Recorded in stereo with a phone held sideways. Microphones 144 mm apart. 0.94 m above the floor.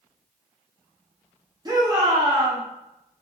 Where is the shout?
30° right (ahead or behind), 1.3 m.